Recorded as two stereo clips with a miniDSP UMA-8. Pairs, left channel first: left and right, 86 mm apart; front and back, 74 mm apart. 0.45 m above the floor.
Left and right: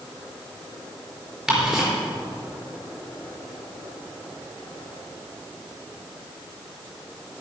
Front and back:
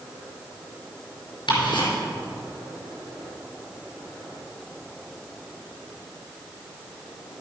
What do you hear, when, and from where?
1.5 s ticking: 10° right, 4.5 m